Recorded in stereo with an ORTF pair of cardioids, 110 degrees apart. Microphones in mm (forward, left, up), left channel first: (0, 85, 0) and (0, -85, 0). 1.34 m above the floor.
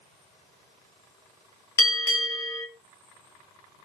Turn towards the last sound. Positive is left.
turn(degrees=20)